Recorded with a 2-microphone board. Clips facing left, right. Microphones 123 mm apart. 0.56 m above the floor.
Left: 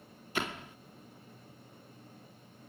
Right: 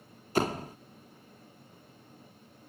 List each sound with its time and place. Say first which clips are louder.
0.3 s a door slam: right 8 dB; 40° right (ahead or behind)